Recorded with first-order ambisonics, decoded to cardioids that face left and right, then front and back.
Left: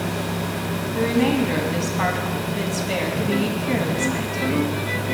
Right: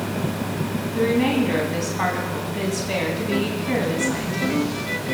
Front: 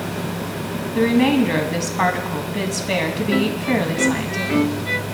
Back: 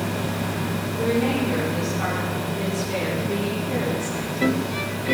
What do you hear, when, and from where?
0.9 s a woman speaking: 5° left, 2.5 m